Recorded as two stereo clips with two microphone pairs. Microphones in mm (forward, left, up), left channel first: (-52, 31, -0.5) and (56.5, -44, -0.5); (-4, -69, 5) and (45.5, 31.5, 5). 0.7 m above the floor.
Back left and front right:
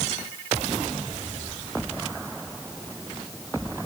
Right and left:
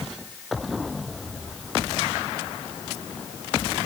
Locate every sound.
Only background noise.